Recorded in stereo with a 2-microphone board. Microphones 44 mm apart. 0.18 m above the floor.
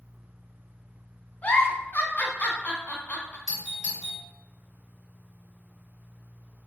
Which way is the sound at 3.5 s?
10° right (ahead or behind).